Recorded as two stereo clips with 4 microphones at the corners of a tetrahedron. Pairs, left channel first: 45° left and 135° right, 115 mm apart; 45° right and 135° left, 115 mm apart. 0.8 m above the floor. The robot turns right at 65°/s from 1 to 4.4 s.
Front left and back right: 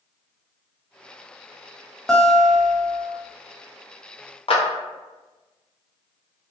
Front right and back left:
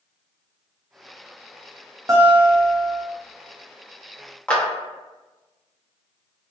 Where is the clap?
30° left, 0.8 m.